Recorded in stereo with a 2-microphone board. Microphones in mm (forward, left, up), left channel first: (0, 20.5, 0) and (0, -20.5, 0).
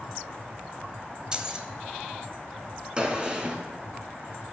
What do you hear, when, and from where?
1.3 s keys jangling: 20° right (ahead or behind), 1.0 m
3.0 s a gunshot: 25° right (ahead or behind), 1.7 m